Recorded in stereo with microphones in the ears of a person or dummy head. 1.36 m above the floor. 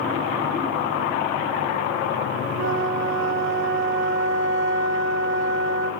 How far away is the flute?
About 2 m.